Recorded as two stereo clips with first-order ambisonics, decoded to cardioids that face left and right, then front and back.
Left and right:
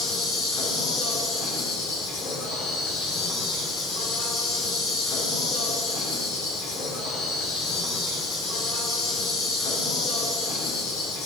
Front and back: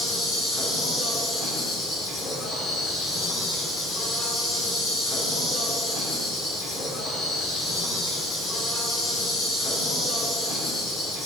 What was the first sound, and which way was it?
An insect, 70° left.